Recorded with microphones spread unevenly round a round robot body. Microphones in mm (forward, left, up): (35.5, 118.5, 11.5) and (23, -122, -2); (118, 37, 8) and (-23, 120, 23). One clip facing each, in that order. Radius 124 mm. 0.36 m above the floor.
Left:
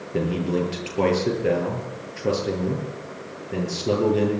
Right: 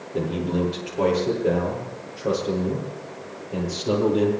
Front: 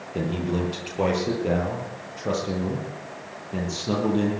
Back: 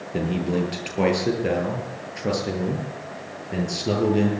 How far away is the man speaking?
About 9 m.